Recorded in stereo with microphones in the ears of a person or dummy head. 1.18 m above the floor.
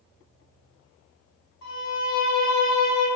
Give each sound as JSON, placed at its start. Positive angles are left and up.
{"t": 1.6, "sound": "a violin", "side_deg": 70, "distance_m": 1.4}